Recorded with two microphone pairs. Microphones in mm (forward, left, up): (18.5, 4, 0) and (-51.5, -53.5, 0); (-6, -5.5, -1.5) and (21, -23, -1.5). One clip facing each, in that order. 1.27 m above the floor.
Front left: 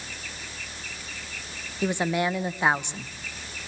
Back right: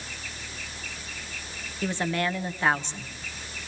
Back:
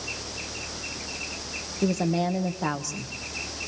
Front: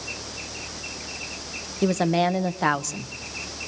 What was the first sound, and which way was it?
A woman speaking, 35° right.